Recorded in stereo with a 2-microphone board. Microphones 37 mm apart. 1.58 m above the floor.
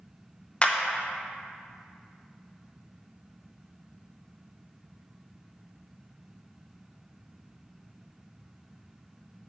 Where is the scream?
No scream in this recording.